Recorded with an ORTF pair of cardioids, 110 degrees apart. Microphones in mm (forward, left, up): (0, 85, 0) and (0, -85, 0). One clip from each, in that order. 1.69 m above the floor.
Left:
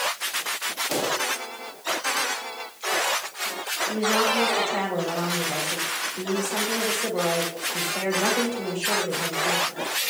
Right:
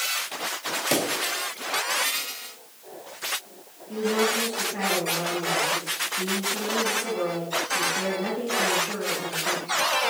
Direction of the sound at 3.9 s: 65° left.